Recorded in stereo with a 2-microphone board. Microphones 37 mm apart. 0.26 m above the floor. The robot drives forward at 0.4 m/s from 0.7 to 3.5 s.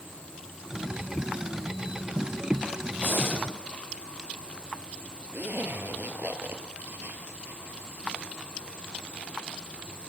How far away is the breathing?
About 9.5 m.